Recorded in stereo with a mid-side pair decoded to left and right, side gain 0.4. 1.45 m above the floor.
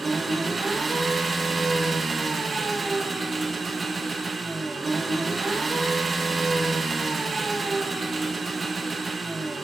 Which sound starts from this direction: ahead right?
An engine running, at 0.0 s.